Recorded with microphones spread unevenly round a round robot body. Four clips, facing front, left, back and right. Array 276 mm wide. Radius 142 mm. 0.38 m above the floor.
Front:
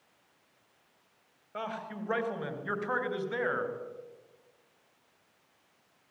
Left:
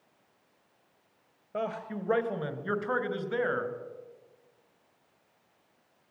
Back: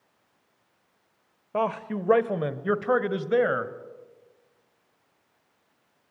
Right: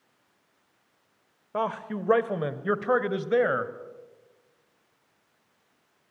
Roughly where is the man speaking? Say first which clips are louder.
Right 5 dB, back 11 dB; behind.